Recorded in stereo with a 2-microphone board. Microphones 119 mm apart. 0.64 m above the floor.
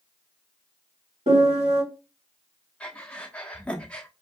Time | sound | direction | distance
1.3 | a piano | 75° right (ahead or behind) | 1.7 m
2.8 | breathing | 10° left (ahead or behind) | 0.7 m